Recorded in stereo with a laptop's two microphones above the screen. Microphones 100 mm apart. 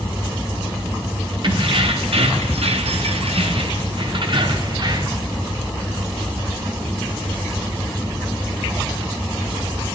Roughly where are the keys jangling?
Right.